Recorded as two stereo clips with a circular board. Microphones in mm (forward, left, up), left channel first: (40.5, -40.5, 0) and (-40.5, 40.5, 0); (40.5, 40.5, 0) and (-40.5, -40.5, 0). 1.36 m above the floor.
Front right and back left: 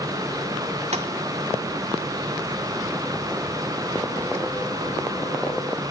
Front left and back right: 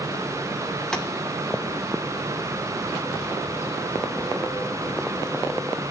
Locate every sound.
0.9 s tapping: 130° left, 2 m